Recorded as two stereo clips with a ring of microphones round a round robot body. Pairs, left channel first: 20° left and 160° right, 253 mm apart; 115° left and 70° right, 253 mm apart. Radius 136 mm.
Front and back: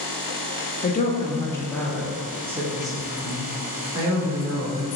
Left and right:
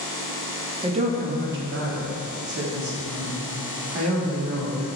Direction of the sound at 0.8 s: 10° right.